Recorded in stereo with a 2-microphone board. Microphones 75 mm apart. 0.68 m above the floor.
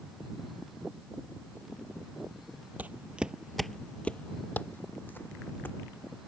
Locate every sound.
2.8 s footsteps: 25° right (ahead or behind); by 6.2 s 30° left (ahead or behind)